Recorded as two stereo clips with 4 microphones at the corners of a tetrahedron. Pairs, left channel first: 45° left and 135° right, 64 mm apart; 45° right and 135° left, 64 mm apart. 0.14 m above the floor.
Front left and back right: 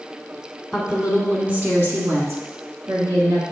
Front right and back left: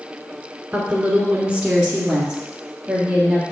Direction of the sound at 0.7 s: 155° left.